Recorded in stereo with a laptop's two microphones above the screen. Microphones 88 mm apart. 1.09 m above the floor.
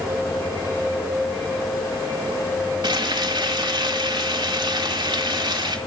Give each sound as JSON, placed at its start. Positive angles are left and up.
{"t": 2.8, "sound": "frying", "side_deg": -65, "distance_m": 1.7}